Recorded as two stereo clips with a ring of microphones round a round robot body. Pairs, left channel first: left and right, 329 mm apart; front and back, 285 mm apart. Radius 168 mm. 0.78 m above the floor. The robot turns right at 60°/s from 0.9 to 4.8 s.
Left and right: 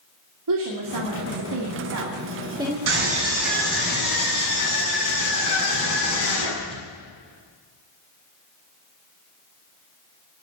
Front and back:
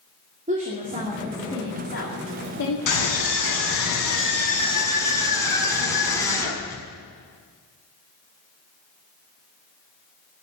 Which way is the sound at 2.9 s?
35° right.